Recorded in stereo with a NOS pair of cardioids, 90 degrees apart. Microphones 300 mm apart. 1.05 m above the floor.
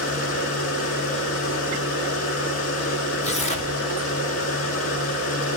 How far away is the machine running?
About 1.7 m.